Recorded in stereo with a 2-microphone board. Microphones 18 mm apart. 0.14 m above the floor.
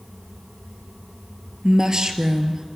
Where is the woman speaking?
40° right (ahead or behind), 2.5 m.